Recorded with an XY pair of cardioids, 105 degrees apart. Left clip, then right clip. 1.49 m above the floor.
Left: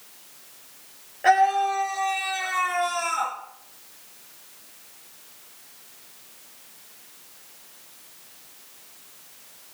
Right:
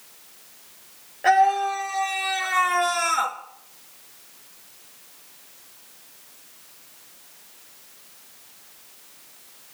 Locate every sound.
1.2 s a scream: straight ahead, 3.5 m; by 3.4 s 60° right, 3 m